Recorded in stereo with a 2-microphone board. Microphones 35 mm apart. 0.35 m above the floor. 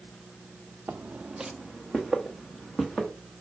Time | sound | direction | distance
0.9 | footsteps | 55° right (ahead or behind) | 0.5 m